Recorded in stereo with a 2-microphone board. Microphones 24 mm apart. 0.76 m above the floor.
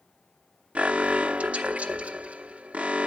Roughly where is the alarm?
Right.